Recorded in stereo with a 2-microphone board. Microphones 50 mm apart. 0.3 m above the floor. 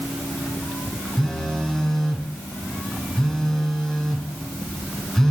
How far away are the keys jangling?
I don't hear keys jangling.